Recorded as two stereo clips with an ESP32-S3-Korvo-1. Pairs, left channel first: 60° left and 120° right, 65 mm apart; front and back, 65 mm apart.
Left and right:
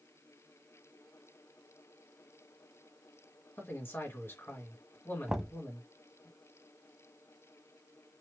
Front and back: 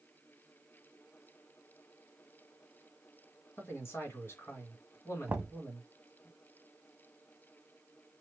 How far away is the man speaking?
About 2 m.